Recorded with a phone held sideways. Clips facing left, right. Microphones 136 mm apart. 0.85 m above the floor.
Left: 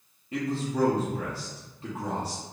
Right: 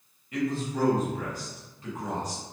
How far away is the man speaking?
About 0.6 m.